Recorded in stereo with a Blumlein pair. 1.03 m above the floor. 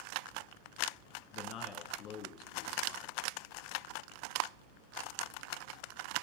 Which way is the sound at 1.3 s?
35° left.